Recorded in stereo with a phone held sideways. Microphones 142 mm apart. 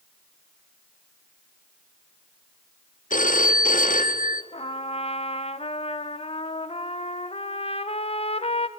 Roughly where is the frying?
I don't hear frying.